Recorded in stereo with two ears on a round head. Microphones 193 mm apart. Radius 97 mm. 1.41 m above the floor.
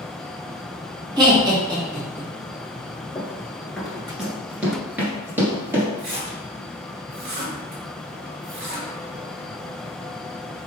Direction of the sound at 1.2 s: 20° right (ahead or behind).